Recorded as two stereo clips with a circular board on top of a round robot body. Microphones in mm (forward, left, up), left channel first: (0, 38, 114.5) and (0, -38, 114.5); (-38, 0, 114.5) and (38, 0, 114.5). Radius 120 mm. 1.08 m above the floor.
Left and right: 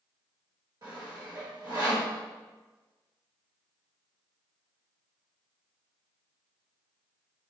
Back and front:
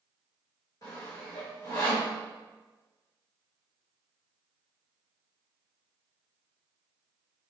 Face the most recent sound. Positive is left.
turn(degrees=-130)